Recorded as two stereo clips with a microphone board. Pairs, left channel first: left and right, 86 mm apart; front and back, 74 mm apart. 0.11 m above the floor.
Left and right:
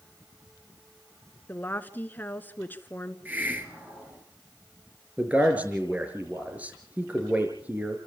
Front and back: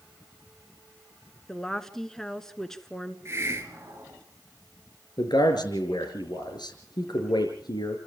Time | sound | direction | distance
1.5 | a woman speaking | 75° left | 1.1 m
3.2 | a hiss | 150° right | 2.5 m
5.2 | a man speaking | 20° right | 5.5 m